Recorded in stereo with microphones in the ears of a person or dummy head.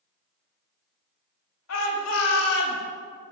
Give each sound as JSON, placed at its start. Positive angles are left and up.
{"t": 1.7, "sound": "a shout", "side_deg": 80, "distance_m": 3.5}